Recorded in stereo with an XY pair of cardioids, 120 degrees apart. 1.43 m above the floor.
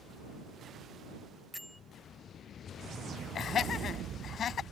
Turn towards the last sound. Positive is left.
turn(degrees=45)